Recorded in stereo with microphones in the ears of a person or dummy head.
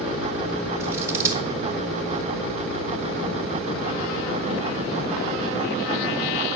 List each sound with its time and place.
0.8 s scissors: 20° right (ahead or behind), 1.5 m